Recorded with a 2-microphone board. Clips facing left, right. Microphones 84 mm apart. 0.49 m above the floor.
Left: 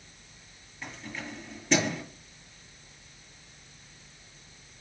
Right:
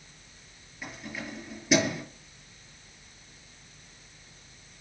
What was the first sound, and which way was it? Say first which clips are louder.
Keys jangling: right 1 dB; 5° right (ahead or behind).